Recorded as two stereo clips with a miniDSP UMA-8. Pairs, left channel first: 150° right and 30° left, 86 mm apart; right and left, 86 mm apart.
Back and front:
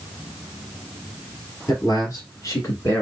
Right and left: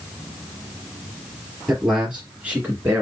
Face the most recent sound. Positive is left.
turn(degrees=155)